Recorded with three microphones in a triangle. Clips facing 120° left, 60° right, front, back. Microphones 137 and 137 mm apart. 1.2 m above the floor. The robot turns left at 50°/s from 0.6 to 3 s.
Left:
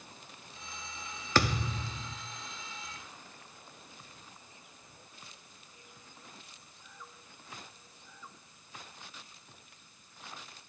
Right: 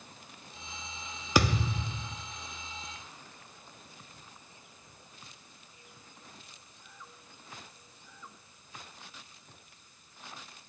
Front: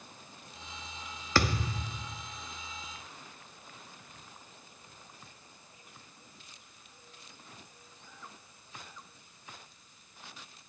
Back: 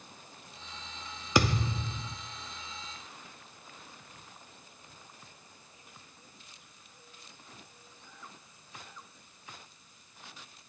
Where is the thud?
120° right, 0.7 m; by 2.2 s 165° right, 0.7 m.